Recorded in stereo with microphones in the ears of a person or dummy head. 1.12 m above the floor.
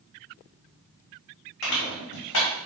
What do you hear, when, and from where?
1.6 s crushing: 65° left (ahead or behind), 2.5 m